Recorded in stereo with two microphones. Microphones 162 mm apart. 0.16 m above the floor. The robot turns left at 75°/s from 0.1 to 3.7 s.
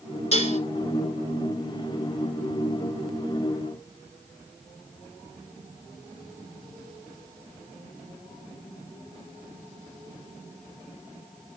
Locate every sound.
0.3 s dishes clattering: 45° left (ahead or behind), 1.3 m; by 0.6 s 55° left (ahead or behind), 1.3 m